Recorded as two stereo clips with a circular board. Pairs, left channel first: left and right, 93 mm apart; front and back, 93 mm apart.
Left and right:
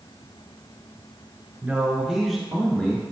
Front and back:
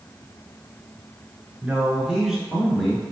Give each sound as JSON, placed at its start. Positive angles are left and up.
{"t": 1.6, "sound": "a man speaking", "azimuth_deg": -130, "distance_m": 1.2}